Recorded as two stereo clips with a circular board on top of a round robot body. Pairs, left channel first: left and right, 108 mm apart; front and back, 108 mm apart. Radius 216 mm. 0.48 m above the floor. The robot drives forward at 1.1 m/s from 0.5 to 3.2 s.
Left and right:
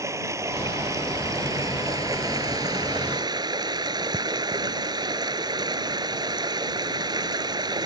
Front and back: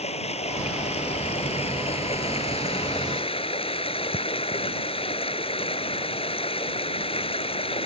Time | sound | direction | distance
0.0 | running water | 25° right | ?